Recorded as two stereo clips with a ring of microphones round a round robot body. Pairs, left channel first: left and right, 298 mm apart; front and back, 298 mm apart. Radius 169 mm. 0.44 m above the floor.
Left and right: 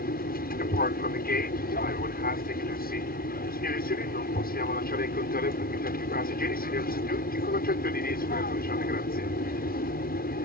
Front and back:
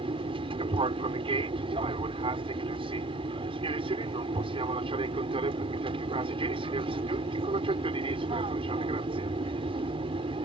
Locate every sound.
0.0 s an aircraft: 120° left